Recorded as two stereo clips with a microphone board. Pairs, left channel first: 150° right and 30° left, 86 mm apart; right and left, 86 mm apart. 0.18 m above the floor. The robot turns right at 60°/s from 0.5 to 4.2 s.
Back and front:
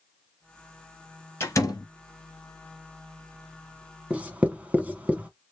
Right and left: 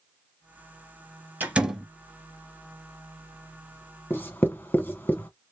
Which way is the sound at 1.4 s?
155° left.